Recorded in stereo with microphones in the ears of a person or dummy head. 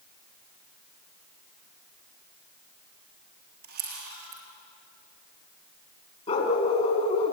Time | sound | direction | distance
3.6 | a camera shutter | 55° right (ahead or behind) | 4 m
6.3 | a dog barking | 40° left (ahead or behind) | 3.5 m